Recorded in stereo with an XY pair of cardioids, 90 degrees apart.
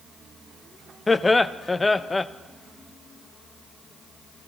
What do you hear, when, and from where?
1.1 s laughter: 25° left, 0.5 m